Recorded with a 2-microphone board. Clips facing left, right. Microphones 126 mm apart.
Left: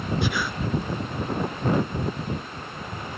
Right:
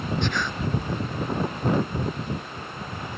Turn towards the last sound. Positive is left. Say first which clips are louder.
# left 1 dB
turn(degrees=10)  # may be behind; listen again after turning